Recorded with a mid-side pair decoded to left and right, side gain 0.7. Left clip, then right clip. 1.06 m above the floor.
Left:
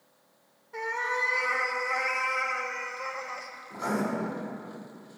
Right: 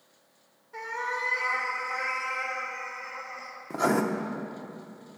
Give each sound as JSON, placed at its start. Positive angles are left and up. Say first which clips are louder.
{"t": 0.7, "sound": "a cat meowing", "louder": "left 2 dB", "azimuth_deg": 10, "distance_m": 1.9}
{"t": 3.7, "sound": "writing", "louder": "right 6 dB", "azimuth_deg": -60, "distance_m": 1.1}